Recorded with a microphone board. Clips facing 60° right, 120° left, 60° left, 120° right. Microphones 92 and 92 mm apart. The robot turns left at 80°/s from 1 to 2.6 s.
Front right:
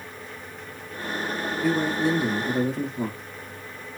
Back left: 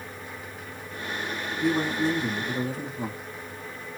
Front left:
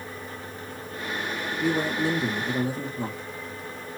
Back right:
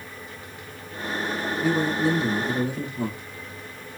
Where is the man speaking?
60° left, 3.5 m; by 3.2 s 20° right, 3.5 m.